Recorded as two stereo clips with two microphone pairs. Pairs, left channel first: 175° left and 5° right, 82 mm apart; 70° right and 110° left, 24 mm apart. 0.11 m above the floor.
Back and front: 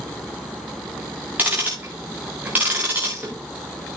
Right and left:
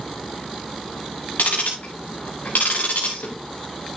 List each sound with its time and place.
1.4 s ticking: 75° right, 4 m